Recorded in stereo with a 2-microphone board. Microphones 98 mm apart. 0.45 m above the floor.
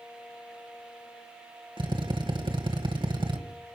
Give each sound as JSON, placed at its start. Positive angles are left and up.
{"t": 1.8, "sound": "a drill", "side_deg": -55, "distance_m": 2.0}